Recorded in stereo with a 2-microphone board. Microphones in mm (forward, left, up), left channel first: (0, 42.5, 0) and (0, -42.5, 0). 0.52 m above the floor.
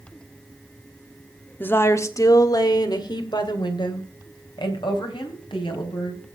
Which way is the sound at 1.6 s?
20° left (ahead or behind).